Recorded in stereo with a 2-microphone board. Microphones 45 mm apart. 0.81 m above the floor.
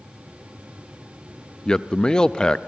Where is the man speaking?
15° left (ahead or behind), 0.5 m.